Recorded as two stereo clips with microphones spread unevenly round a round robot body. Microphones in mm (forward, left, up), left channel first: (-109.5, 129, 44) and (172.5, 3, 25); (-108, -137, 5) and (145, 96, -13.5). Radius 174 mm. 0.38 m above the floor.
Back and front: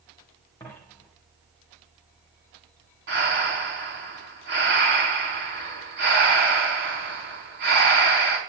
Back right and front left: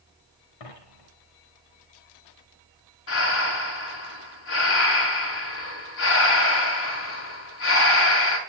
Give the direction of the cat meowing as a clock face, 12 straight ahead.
I don't hear a cat meowing.